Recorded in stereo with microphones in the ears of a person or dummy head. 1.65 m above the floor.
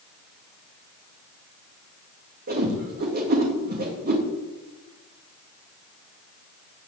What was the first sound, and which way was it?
A whoosh, 55° right (ahead or behind).